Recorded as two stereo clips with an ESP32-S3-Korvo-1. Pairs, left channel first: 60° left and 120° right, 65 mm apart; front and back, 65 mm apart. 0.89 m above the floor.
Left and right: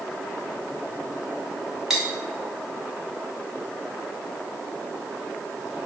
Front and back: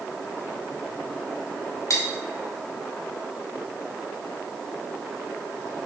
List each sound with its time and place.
1.9 s cutlery clinking: 40° right, 0.8 m